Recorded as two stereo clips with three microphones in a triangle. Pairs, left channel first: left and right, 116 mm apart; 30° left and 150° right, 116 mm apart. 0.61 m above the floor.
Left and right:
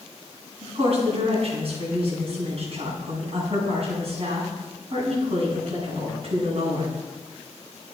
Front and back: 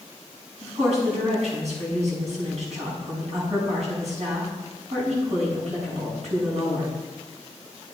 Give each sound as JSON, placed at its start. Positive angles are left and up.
{"t": 0.6, "sound": "a woman speaking", "azimuth_deg": -125, "distance_m": 6.0}